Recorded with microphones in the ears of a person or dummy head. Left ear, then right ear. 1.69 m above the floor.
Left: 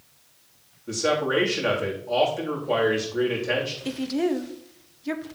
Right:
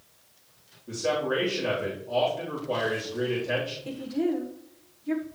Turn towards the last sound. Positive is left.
turn(degrees=70)  # may be behind; listen again after turning